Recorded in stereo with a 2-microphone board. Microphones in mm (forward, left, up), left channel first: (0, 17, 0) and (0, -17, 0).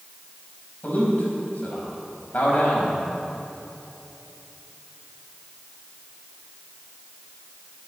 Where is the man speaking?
40° left (ahead or behind), 4.5 m.